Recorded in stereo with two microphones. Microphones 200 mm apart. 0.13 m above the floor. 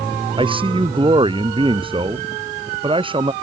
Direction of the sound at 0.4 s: 25° right (ahead or behind).